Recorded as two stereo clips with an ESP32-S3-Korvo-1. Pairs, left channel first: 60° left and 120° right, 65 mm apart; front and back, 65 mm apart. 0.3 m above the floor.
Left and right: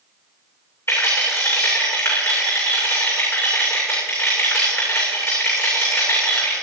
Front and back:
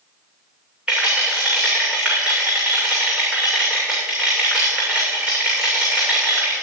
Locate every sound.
0.9 s a rattle: 105° left, 6.5 m